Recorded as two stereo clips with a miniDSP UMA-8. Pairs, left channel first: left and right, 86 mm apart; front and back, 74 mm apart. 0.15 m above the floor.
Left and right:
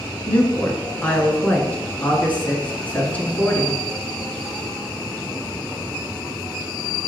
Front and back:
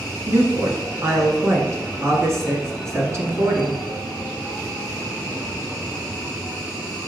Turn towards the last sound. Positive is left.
turn(degrees=155)